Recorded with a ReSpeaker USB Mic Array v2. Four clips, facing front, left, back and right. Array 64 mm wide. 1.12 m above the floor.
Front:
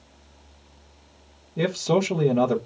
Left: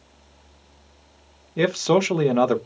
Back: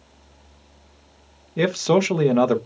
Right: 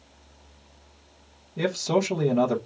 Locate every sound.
1.6 s a man speaking: 135° left, 0.9 m